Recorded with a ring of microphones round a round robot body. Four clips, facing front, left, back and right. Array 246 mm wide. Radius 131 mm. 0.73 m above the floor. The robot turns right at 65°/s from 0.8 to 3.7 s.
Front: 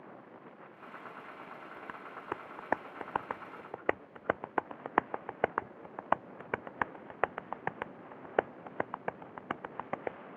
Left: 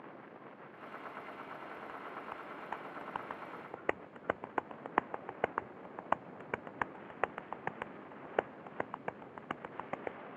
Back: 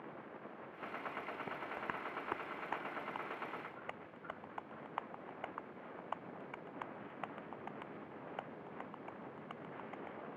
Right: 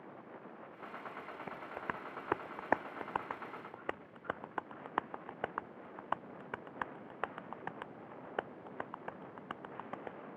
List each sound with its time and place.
1.5 s tapping: 130° right; by 10.2 s 15° left